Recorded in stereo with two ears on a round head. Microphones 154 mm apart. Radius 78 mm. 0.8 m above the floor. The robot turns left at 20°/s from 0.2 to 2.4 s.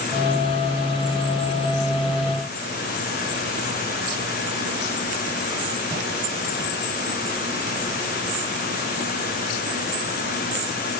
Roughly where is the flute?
No flute in this recording.